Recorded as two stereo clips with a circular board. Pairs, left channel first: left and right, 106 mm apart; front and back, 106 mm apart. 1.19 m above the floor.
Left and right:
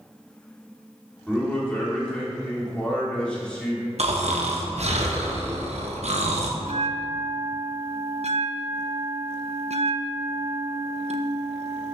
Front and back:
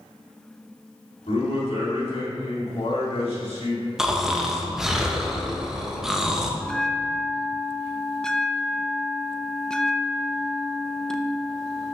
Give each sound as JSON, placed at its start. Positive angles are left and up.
{"t": 1.3, "sound": "a man speaking", "azimuth_deg": 10, "distance_m": 3.0}
{"t": 4.0, "sound": "snoring", "azimuth_deg": -95, "distance_m": 1.0}
{"t": 6.6, "sound": "a bell", "azimuth_deg": -85, "distance_m": 0.6}